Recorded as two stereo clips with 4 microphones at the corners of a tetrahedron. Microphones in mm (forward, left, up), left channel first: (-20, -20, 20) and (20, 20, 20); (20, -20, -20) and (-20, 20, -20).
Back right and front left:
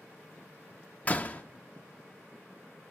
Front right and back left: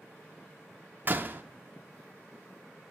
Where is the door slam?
170° left, 0.6 m.